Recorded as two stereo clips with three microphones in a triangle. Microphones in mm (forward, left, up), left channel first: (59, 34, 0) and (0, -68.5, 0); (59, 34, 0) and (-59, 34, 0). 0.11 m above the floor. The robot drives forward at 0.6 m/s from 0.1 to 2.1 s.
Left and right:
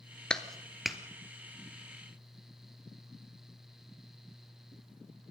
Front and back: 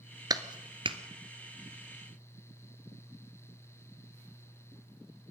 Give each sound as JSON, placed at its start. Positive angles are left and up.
{"t": 0.3, "sound": "a clap", "azimuth_deg": 140, "distance_m": 1.2}